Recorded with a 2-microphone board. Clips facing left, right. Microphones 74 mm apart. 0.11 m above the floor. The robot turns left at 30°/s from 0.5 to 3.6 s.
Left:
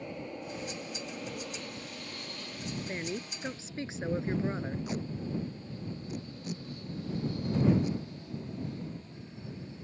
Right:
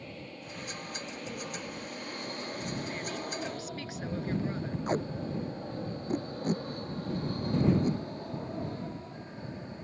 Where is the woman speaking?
25° left (ahead or behind).